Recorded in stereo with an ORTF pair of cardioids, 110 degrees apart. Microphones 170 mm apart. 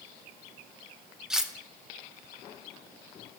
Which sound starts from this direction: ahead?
Cutlery clinking, at 1.3 s.